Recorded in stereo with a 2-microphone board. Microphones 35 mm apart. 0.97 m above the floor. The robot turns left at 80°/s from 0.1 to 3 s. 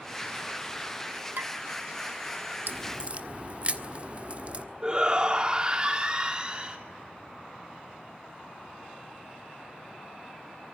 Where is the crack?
65° right (ahead or behind), 1.5 m; by 4.7 s 35° right (ahead or behind), 1.5 m.